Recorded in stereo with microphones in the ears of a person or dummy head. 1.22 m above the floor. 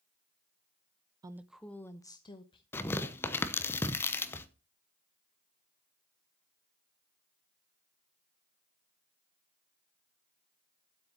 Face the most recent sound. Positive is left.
turn(degrees=10)  # may be behind; listen again after turning